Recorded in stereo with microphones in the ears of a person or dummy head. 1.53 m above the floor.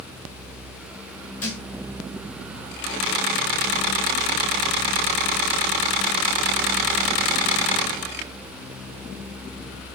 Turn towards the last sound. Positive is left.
turn(degrees=10)  # may be behind; listen again after turning